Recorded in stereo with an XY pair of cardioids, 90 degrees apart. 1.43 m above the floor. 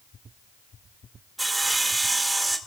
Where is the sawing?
20° right, 2 m.